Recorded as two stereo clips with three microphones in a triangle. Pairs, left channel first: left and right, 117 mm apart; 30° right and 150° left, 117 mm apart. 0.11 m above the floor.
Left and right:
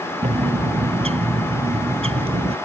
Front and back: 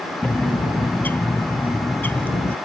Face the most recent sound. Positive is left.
turn(degrees=-100)